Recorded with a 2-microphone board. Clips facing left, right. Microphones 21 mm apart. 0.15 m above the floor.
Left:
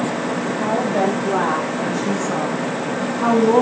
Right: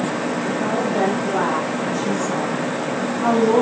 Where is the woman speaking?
65° left (ahead or behind), 7 m; by 3.6 s 80° left, 8 m.